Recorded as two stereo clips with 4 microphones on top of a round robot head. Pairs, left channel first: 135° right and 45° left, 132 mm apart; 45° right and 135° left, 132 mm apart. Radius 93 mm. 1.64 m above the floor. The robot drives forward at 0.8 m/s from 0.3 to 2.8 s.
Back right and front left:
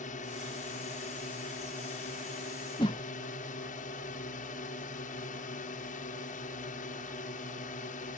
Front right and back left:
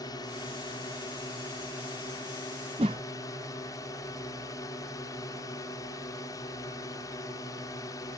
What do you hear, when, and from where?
0.0 s a drone: 110° right
2.8 s a whoosh: 175° left